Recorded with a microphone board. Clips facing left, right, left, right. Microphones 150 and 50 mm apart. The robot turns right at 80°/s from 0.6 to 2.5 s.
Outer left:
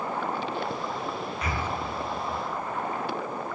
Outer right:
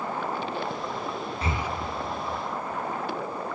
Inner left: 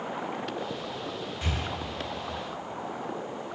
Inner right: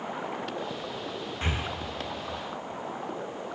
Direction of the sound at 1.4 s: 30° right (ahead or behind).